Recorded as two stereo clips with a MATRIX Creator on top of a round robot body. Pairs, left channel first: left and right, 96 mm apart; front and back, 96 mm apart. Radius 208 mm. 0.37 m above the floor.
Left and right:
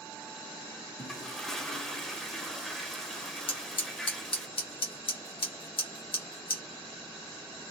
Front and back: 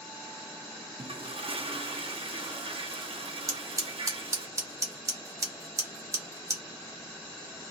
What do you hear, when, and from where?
1.0 s a toilet flushing: 175° left, 0.8 m
3.5 s scissors: 120° left, 1.2 m